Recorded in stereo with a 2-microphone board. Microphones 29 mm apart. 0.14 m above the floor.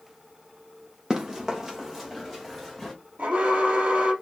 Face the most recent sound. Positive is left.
turn(degrees=-65)  # may be behind; listen again after turning